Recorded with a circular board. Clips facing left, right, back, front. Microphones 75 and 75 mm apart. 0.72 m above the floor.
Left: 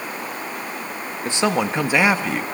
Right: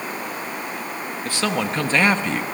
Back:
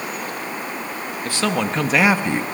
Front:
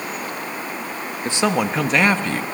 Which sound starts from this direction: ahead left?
A man speaking, at 1.2 s.